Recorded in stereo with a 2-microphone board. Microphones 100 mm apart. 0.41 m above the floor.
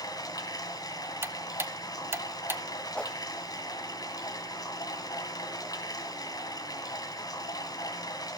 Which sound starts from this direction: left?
Running water, at 0.0 s.